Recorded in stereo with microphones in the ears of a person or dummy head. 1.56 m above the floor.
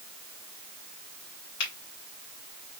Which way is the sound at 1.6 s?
60° left (ahead or behind).